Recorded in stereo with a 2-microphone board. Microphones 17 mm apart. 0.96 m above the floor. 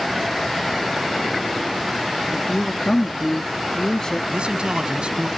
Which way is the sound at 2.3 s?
50° left (ahead or behind).